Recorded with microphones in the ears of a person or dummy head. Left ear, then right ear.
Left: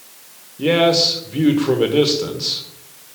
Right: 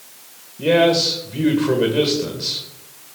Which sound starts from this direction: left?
A man speaking, at 0.6 s.